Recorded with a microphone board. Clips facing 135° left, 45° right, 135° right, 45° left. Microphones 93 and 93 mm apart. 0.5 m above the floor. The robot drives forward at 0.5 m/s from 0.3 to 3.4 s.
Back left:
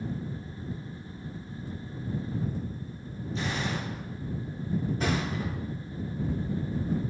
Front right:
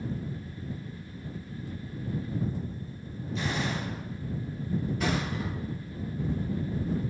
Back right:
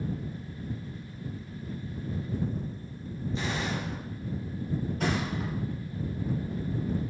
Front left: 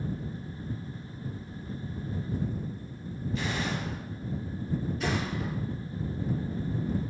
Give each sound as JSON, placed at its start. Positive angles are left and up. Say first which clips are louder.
{"t": 3.4, "sound": "a gunshot", "louder": "front right 1 dB, even", "azimuth_deg": 175, "distance_m": 1.5}
{"t": 5.0, "sound": "a thud", "louder": "even, back right 1 dB", "azimuth_deg": -170, "distance_m": 1.1}